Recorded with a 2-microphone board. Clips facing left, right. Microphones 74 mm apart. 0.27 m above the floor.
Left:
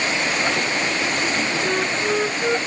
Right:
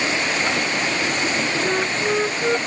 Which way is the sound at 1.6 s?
Centre (ahead or behind).